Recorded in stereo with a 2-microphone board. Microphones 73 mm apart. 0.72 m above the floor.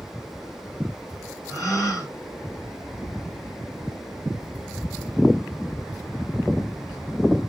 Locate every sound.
1.5 s a gasp: 45° left (ahead or behind), 1.9 m